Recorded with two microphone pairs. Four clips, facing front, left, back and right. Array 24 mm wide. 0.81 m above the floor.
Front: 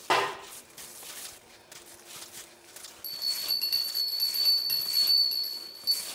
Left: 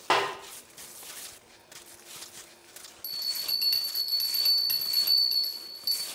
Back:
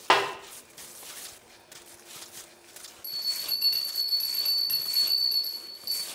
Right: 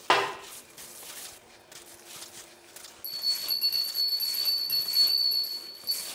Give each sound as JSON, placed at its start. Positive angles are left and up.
{"t": 0.1, "sound": "a snare drum", "azimuth_deg": -160, "distance_m": 1.4}
{"t": 3.0, "sound": "a bell", "azimuth_deg": 80, "distance_m": 2.5}